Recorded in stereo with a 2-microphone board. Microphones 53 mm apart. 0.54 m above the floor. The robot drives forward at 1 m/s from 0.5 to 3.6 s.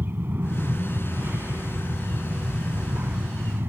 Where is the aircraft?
45° right (ahead or behind).